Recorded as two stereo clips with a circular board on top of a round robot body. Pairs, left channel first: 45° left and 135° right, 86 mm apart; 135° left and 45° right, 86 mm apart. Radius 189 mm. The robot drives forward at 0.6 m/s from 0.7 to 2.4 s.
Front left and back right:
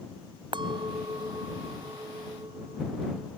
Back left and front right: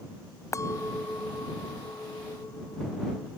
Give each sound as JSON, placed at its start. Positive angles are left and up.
{"t": 0.5, "sound": "a clink", "azimuth_deg": -170}